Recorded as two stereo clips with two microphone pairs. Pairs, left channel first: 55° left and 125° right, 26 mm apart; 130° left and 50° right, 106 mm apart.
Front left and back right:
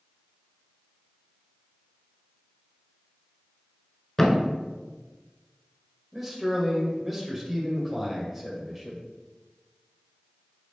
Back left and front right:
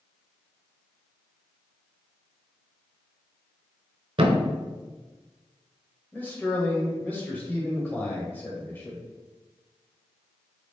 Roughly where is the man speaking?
Behind.